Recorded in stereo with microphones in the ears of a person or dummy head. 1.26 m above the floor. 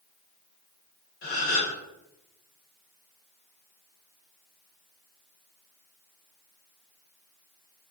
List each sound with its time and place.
1.2 s a gasp: 55° left (ahead or behind), 1.6 m